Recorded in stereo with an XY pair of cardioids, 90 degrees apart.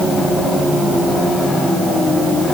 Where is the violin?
No violin in this recording.